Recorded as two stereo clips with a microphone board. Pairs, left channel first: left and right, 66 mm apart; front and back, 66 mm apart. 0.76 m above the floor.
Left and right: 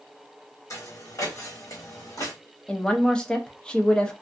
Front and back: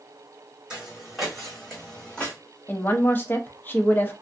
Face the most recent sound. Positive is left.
turn(degrees=20)